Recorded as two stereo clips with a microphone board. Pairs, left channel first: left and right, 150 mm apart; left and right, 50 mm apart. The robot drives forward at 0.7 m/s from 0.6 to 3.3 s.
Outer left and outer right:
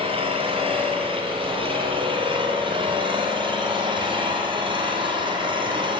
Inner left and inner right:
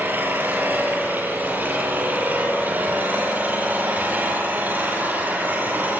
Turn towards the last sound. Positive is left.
turn(degrees=-35)  # may be behind; listen again after turning